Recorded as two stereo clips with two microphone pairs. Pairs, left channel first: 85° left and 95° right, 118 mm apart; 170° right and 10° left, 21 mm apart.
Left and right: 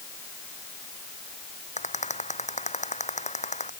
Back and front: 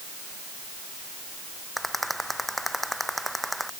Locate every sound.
1.8 s a rattle: 100° left